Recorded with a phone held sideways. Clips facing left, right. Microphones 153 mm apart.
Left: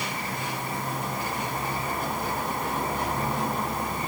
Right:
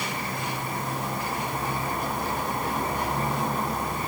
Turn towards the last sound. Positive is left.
No sound to turn to.